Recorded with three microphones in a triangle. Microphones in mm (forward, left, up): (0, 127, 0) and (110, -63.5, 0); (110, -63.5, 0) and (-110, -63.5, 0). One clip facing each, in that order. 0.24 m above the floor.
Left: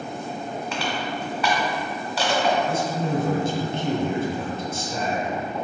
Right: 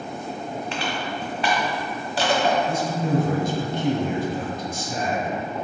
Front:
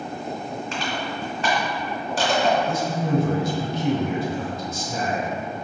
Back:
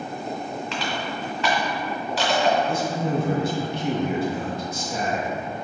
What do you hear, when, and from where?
0.7 s crushing: 10° right, 1.1 m
2.7 s a man speaking: 10° left, 1.6 m